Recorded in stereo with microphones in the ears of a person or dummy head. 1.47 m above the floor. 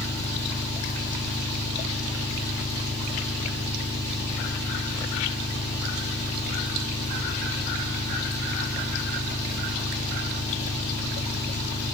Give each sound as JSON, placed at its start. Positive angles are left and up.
{"t": 0.0, "sound": "an engine running", "side_deg": 20, "distance_m": 5.0}